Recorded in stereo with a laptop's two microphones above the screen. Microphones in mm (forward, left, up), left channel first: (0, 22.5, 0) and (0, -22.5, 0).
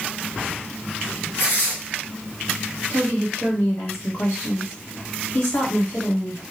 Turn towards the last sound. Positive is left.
turn(degrees=65)  # may be behind; listen again after turning